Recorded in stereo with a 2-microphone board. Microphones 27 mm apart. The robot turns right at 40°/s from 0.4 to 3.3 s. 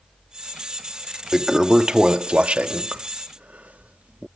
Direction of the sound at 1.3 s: 10° right (ahead or behind).